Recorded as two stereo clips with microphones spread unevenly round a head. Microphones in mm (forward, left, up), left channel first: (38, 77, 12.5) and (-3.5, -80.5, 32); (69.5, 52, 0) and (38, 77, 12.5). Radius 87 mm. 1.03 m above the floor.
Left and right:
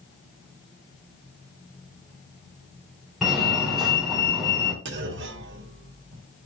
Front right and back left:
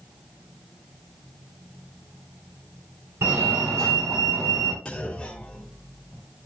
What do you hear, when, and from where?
3.2 s a fire alarm: 160° left, 1.9 m
4.8 s a clunk: 100° right, 1.2 m